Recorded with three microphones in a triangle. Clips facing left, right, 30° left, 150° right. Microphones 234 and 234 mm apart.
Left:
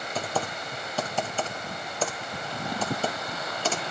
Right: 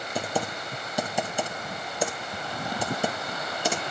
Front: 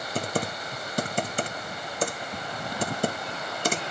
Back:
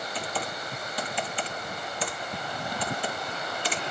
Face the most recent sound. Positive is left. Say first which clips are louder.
# right 2 dB, front 7 dB
turn(degrees=-15)